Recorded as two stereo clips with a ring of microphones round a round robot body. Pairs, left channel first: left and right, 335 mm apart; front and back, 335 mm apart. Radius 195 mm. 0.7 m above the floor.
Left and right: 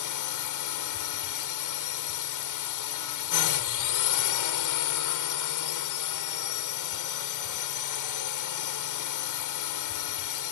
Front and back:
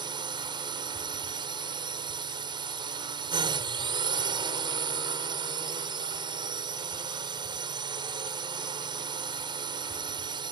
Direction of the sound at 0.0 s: 105° left.